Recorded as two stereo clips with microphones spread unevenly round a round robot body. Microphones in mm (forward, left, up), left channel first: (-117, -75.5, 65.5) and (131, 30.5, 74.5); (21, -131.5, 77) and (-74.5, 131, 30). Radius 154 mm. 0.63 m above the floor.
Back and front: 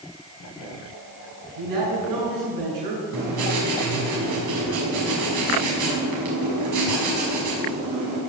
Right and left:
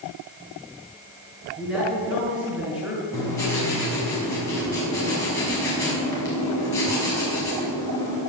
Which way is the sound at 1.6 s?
25° left.